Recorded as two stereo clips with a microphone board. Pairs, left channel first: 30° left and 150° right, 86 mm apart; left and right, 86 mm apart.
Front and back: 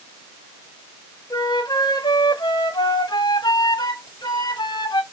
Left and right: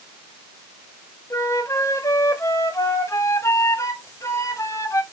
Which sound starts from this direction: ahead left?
A flute, at 1.3 s.